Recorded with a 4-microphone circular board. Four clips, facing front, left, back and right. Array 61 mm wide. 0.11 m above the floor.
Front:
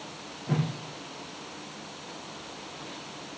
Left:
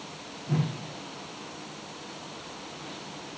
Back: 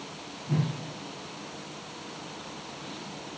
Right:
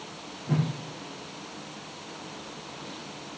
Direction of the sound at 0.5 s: 25° right.